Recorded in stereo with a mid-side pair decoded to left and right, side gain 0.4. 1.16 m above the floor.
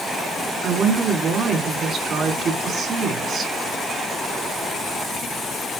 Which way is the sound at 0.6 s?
60° right.